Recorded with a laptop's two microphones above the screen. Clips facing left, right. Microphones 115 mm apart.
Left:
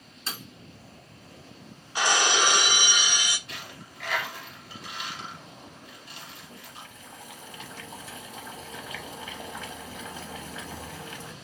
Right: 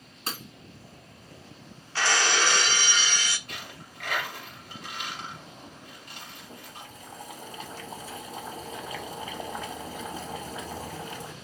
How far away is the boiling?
About 1.2 m.